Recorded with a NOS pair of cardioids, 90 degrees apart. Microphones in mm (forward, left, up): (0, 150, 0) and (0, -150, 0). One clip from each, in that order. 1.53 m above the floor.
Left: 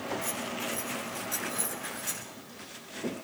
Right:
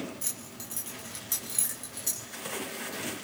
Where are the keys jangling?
60° right, 7.5 m; by 2.3 s 55° right, 8.5 m.